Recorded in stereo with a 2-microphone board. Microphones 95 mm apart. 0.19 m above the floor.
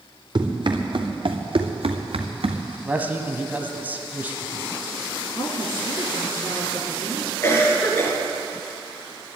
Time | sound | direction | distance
0.3 | running footsteps | 50° right (ahead or behind) | 2.5 m
2.9 | a man speaking | 20° right (ahead or behind) | 1.2 m
5.3 | a woman speaking | 60° left (ahead or behind) | 2.5 m
7.4 | a cough | 25° left (ahead or behind) | 3.5 m